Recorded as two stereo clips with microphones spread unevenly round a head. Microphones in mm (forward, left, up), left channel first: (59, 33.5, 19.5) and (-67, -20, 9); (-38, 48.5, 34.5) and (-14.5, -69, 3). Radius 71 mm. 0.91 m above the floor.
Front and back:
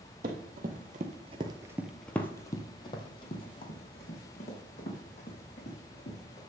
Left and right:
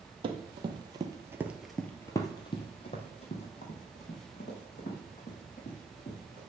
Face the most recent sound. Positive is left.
turn(degrees=65)